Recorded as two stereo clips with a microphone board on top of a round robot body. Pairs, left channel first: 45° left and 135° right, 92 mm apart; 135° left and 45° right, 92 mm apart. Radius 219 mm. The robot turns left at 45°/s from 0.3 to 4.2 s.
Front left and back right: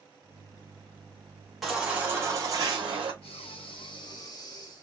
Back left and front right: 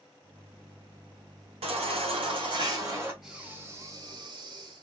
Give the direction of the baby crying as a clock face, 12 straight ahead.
2 o'clock.